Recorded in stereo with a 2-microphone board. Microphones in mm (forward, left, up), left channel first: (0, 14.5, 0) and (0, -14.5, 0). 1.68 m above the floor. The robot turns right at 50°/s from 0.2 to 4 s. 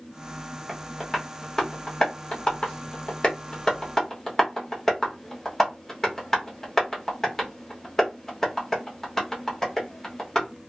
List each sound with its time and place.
0.7 s tapping: 5° right (ahead or behind), 1.0 m; by 10.5 s 15° left (ahead or behind), 1.0 m